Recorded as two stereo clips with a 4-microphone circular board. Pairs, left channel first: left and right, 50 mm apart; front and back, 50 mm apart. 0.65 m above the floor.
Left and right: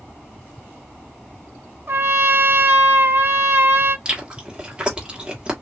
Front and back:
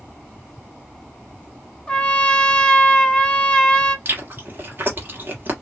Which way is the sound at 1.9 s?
70° right.